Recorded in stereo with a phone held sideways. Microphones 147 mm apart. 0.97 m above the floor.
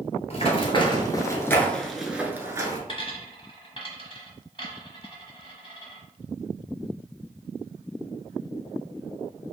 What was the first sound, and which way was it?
Running footsteps, 45° left (ahead or behind).